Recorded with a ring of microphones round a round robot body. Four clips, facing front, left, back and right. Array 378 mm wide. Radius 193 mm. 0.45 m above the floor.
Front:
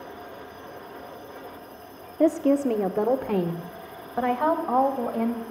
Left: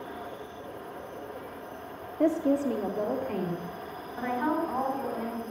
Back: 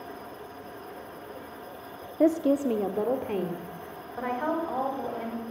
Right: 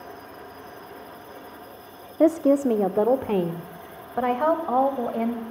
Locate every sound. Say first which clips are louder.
2.2 s a woman speaking: right 6 dB, front 2 dB; 90° right, 0.8 m; by 5.4 s 60° right, 2.5 m